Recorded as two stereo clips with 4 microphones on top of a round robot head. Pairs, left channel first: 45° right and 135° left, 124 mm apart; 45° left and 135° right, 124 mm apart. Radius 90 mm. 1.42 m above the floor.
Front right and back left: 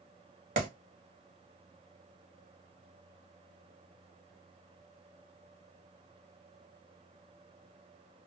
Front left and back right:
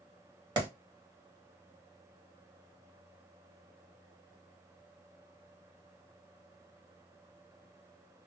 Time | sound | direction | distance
0.6 | a clap | 165° left | 1.8 m